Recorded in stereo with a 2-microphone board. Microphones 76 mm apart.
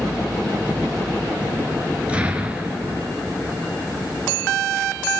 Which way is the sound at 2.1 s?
15° right (ahead or behind).